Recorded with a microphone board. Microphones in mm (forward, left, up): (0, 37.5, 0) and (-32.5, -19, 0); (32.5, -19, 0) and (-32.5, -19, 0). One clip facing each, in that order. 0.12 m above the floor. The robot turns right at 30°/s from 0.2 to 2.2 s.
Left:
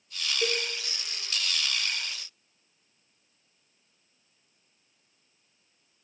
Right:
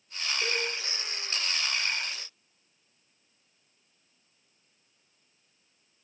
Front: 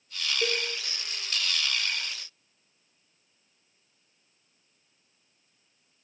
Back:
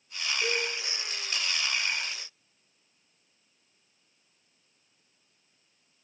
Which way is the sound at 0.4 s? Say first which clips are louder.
Left 2 dB, even; 15° left.